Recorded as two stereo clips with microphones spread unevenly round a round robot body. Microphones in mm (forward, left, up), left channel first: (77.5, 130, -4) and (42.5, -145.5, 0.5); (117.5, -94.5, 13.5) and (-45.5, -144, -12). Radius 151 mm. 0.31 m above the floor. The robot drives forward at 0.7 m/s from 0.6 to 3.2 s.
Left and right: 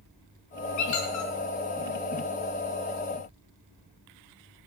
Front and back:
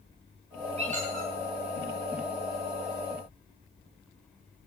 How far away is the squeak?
About 1.9 m.